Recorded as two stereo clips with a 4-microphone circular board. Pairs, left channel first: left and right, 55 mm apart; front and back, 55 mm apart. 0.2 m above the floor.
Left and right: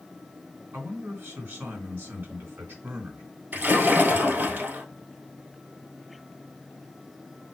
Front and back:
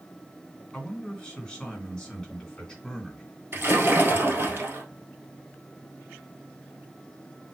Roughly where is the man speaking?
Right.